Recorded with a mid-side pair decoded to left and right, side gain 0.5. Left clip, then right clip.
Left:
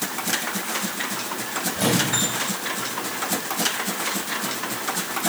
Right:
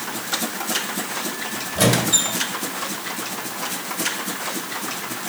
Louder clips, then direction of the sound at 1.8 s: Right 4 dB; 65° right.